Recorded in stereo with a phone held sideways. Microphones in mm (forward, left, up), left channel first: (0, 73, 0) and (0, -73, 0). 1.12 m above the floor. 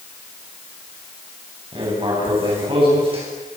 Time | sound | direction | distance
1.7 | writing | 35° right (ahead or behind) | 9 m